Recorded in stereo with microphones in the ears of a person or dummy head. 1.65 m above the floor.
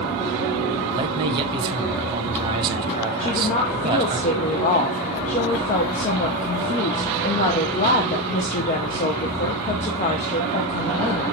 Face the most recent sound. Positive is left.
turn(degrees=35)  # may be behind; listen again after turning